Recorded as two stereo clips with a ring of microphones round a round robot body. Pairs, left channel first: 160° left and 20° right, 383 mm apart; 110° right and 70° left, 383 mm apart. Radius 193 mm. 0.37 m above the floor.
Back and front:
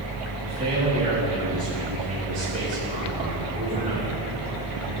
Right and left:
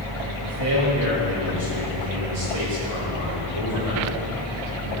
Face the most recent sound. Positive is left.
turn(degrees=50)